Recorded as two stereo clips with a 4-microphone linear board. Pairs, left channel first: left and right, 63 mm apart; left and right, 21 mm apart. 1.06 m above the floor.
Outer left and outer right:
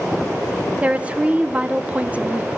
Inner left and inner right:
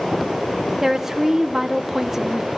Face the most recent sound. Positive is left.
turn(degrees=-20)  # may be behind; listen again after turning